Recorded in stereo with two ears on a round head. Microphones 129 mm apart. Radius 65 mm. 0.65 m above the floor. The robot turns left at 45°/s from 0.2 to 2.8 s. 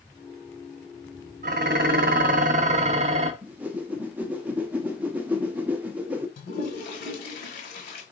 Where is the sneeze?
No sneeze in this recording.